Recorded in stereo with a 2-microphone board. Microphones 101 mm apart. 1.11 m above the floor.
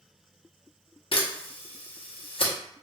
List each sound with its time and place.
1.1 s a camera shutter: 60° left (ahead or behind), 0.8 m